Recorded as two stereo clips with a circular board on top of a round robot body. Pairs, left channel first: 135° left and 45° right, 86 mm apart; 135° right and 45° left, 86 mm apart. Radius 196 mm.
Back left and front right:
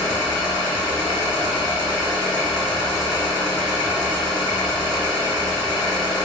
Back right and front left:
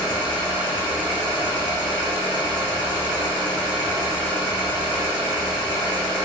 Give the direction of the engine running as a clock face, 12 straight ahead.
9 o'clock.